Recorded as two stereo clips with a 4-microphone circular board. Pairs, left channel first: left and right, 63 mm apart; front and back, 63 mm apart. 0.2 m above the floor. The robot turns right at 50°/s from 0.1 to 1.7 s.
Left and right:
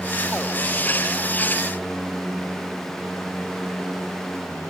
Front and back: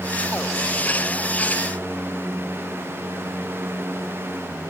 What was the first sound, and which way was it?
Only background noise.